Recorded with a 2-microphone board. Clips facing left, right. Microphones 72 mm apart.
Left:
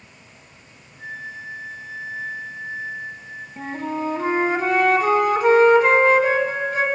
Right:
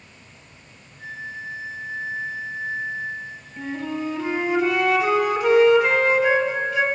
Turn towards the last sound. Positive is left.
turn(degrees=35)  # may be behind; listen again after turning